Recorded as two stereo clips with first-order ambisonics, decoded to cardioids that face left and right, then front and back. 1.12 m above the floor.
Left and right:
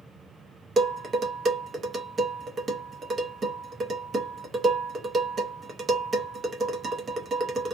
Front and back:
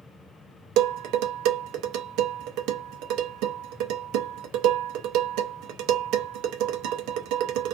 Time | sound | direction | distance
0.8 | dishes clattering | 155° right | 0.6 m